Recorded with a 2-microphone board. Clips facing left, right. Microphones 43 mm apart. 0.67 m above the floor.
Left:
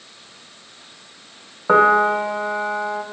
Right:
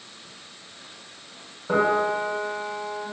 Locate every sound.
1.7 s a piano: 85° left, 0.8 m